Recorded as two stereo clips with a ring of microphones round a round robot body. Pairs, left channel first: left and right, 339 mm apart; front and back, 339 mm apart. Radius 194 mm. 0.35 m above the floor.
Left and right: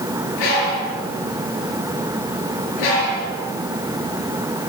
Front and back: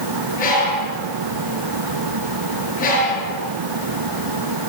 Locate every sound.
0.4 s a bird: 70° left, 5.5 m